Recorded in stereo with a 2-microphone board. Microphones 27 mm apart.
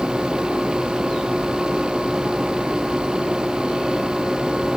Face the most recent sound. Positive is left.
No sound to turn to.